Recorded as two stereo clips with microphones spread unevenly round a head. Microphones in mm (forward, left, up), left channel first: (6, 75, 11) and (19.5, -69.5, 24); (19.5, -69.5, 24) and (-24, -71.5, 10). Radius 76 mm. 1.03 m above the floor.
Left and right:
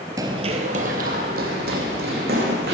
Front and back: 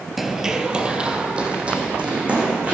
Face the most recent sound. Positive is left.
turn(degrees=-110)